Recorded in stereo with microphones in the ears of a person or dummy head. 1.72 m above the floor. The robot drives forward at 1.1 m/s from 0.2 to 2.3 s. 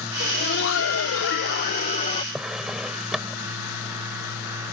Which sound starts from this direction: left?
Laughter, at 0.2 s.